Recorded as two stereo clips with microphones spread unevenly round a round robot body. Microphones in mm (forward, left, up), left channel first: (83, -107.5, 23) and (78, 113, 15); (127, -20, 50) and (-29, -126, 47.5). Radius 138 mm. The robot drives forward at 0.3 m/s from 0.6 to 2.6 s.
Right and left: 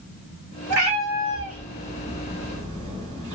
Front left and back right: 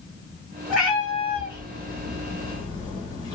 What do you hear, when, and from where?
0.7 s a cat meowing: 125° left, 1.2 m; by 3.3 s 140° left, 1.6 m